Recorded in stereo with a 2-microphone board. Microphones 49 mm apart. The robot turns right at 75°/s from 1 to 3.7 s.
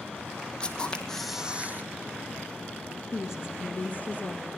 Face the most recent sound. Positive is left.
turn(degrees=135)